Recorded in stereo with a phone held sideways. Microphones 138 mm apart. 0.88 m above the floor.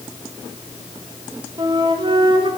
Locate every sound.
1.6 s a flute: 35° right (ahead or behind), 1.0 m